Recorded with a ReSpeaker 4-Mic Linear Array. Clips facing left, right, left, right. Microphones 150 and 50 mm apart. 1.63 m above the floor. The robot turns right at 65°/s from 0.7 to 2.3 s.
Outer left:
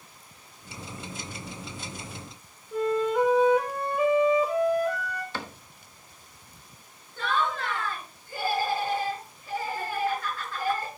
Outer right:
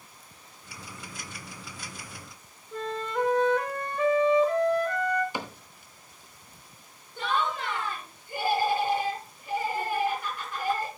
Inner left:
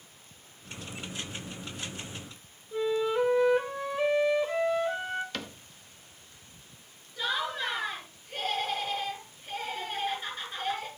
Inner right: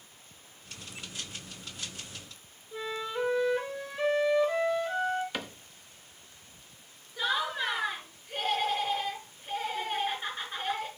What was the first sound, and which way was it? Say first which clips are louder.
A flute: outer left 7 dB, inner left 7 dB; 10° left (ahead or behind).